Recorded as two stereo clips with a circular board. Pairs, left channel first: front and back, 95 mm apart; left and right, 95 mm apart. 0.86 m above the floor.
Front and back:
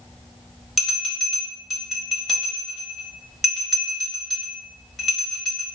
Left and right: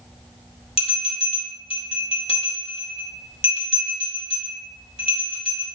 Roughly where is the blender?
No blender in this recording.